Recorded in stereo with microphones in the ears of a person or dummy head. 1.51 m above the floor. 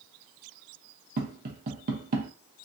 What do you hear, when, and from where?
1.2 s tapping: 50° right (ahead or behind), 0.8 m